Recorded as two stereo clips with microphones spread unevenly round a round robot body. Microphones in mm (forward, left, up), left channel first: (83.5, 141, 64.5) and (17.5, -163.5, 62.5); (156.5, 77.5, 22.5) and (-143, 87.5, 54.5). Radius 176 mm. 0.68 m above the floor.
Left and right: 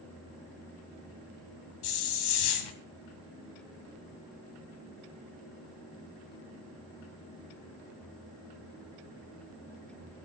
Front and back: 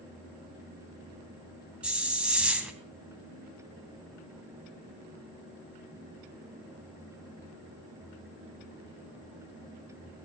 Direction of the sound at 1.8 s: 90° left.